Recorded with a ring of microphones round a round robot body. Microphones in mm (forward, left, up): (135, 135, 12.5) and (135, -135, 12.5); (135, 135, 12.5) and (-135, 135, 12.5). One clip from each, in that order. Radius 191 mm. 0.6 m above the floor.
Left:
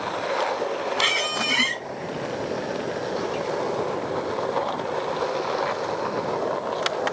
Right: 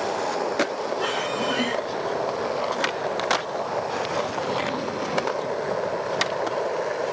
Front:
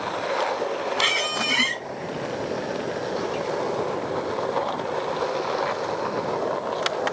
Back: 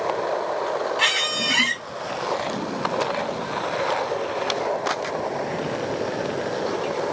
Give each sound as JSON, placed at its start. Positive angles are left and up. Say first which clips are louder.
{"t": 1.0, "sound": "a squeak", "louder": "left 5 dB, back 1 dB", "azimuth_deg": 115, "distance_m": 0.9}